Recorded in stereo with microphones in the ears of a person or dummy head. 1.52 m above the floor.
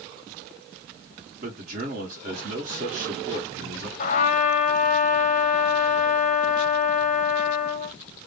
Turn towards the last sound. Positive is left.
turn(degrees=40)  # may be behind; listen again after turning